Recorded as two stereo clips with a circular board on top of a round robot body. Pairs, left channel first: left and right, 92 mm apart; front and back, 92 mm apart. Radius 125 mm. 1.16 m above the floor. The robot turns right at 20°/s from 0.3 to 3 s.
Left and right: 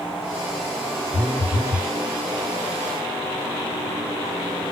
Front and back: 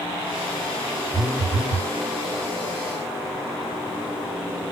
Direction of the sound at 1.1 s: 85° right.